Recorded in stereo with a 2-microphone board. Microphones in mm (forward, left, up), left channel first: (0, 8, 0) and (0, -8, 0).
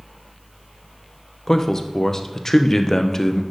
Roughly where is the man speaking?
Left.